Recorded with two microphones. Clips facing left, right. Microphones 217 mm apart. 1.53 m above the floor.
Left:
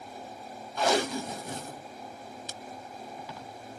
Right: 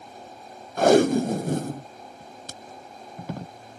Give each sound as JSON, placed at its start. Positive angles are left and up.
{"t": 0.8, "sound": "tape being pulled", "side_deg": -50}